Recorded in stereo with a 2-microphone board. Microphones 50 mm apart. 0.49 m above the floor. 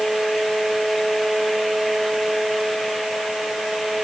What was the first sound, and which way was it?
Only background noise.